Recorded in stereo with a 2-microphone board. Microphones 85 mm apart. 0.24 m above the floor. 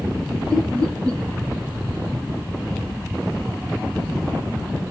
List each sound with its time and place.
0.5 s laughter: 45° right (ahead or behind), 9.5 m